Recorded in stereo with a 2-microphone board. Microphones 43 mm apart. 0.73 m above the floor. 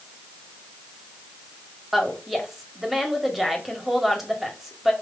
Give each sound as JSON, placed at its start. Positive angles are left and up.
{"t": 1.9, "sound": "a woman speaking", "side_deg": -5, "distance_m": 1.7}